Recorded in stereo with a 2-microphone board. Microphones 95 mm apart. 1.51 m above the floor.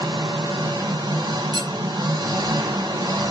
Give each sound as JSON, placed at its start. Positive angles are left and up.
{"t": 0.0, "sound": "an engine running", "side_deg": -45, "distance_m": 1.7}
{"t": 1.5, "sound": "cutlery clinking", "side_deg": -50, "distance_m": 1.2}